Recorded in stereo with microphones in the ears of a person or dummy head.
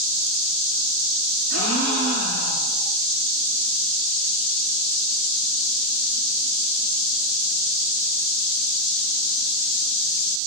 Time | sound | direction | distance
1.5 | a gasp | 70° left (ahead or behind) | 9.5 m